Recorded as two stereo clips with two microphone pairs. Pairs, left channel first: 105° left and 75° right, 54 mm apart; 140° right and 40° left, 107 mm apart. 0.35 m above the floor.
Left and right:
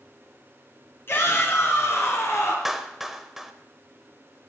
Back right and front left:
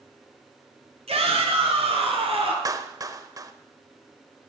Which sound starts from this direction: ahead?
A clap, at 2.6 s.